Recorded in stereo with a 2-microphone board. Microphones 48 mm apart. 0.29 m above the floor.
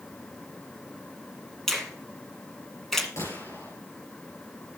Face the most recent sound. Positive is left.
turn(degrees=65)  # may be behind; listen again after turning